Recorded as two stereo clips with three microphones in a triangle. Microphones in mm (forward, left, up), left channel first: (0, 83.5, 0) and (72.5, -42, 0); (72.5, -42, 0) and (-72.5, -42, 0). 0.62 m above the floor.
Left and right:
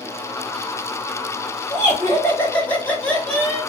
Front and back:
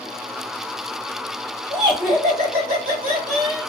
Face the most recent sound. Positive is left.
turn(degrees=-150)